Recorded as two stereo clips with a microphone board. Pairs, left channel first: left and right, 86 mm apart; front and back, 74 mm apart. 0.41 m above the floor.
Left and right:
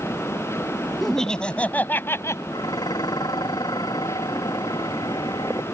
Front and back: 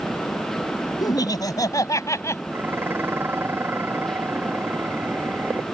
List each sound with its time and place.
1.0 s laughter: 5° left; by 2.4 s 40° left
2.5 s dishes clattering: 120° left